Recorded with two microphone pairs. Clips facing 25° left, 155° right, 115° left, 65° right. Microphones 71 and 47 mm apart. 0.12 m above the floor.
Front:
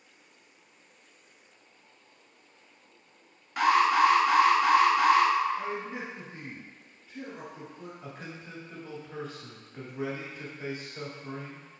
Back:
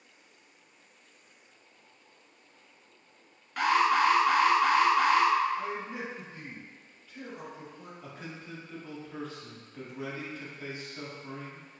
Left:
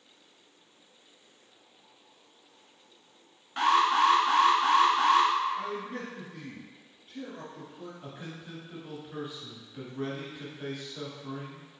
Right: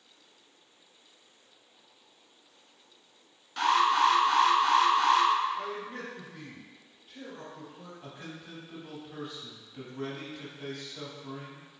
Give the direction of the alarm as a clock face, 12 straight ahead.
8 o'clock.